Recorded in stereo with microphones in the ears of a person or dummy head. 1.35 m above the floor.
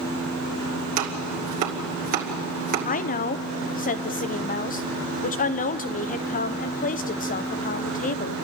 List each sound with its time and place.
1.0 s chopping: 45° right (ahead or behind), 2.5 m
2.9 s a woman speaking: 35° left (ahead or behind), 0.7 m